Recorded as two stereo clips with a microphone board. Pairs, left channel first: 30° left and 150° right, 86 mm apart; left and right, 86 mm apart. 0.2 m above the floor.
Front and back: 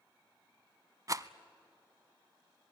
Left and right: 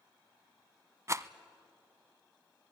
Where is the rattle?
125° right, 0.6 m.